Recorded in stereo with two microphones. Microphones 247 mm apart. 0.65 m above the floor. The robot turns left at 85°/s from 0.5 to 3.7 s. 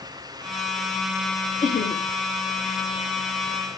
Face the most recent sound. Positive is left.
turn(degrees=-40)